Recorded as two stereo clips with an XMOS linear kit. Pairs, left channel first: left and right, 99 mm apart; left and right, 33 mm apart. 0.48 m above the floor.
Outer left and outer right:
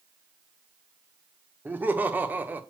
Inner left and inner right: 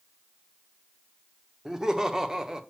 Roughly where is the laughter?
Centre.